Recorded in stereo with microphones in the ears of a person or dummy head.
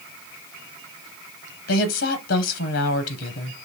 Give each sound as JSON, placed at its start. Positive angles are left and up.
{"t": 1.7, "sound": "a woman speaking", "side_deg": 65, "distance_m": 0.7}